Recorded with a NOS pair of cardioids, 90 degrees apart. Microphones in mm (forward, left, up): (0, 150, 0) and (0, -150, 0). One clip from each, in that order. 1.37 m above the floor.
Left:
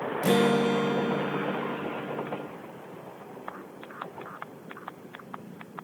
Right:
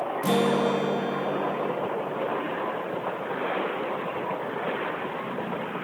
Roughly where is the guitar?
Ahead.